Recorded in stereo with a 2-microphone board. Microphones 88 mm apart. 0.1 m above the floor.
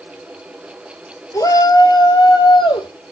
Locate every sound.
1.3 s a shout: 40° left (ahead or behind), 2 m; by 2.9 s 65° left (ahead or behind), 3 m